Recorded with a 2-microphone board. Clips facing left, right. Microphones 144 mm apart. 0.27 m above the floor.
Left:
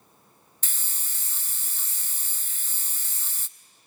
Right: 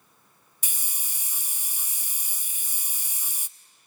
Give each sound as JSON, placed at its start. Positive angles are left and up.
{"t": 0.6, "sound": "a hiss", "side_deg": -15, "distance_m": 0.6}